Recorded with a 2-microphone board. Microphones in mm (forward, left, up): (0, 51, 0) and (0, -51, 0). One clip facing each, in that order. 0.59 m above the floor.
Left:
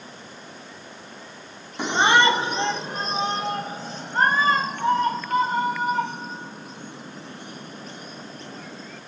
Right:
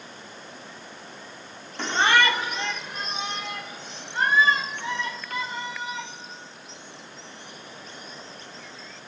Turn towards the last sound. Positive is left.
turn(degrees=45)  # may be behind; listen again after turning